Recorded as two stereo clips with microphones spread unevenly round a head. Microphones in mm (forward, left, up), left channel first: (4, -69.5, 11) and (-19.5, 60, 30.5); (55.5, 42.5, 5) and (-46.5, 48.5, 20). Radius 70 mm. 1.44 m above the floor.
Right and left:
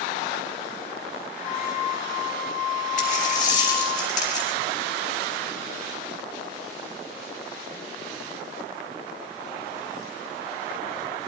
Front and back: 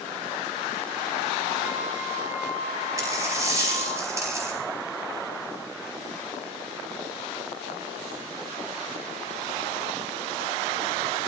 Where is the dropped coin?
115° right, 4.5 m.